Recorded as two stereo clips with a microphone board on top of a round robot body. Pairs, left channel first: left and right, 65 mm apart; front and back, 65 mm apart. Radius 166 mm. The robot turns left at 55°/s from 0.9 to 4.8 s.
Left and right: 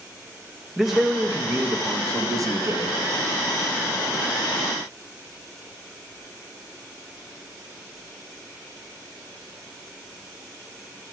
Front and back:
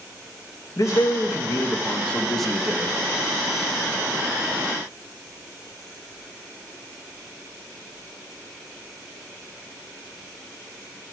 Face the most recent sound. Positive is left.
turn(degrees=140)